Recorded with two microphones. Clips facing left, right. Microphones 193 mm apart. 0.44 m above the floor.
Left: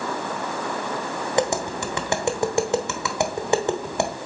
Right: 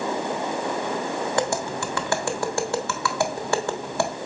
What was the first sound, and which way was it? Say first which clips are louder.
Tapping: left 6 dB; 20° left (ahead or behind).